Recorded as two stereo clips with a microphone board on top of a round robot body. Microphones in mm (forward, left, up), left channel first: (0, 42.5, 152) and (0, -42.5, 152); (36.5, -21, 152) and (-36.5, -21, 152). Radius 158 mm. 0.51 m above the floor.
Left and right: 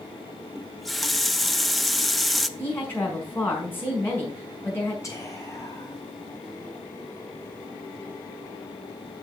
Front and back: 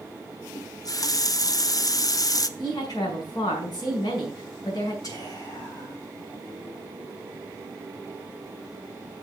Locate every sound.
0.6 s a running tap: straight ahead, 0.7 m
2.6 s a woman speaking: 25° left, 5.5 m
5.0 s whispering: 35° left, 4.5 m